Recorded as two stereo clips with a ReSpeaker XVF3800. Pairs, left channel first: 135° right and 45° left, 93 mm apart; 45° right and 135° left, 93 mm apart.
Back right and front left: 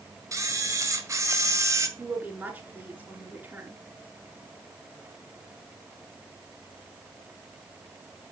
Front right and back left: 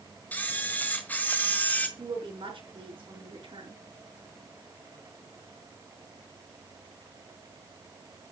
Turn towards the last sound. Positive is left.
turn(degrees=115)